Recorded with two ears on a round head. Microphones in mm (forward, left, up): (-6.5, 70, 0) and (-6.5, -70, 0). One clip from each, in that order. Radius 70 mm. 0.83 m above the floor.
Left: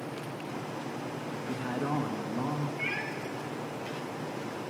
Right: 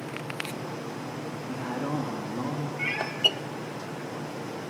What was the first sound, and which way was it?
A man speaking, 45° left (ahead or behind).